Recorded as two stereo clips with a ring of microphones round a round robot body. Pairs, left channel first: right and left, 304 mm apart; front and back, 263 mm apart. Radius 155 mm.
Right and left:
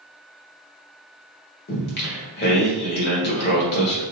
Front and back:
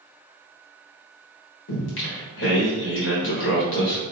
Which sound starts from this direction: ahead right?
Singing, at 1.7 s.